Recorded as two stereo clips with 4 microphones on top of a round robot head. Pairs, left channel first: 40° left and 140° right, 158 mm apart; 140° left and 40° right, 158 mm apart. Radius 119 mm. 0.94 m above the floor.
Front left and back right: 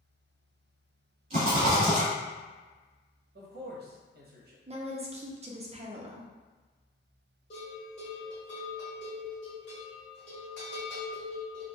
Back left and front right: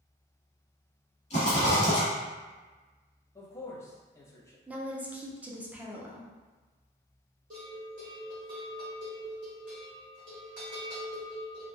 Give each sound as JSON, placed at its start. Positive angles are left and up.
{"t": 1.3, "sound": "a rattle", "azimuth_deg": 175, "distance_m": 1.0}
{"t": 3.4, "sound": "a man speaking", "azimuth_deg": -150, "distance_m": 0.7}
{"t": 4.7, "sound": "a woman speaking", "azimuth_deg": -120, "distance_m": 0.5}
{"t": 7.5, "sound": "a bell", "azimuth_deg": -5, "distance_m": 1.4}